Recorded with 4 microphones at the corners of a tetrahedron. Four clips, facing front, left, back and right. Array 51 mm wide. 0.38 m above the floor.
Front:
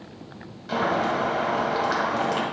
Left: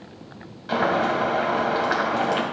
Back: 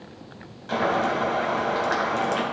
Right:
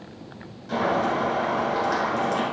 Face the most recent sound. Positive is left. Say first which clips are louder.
# left 2 dB, even
turn(degrees=100)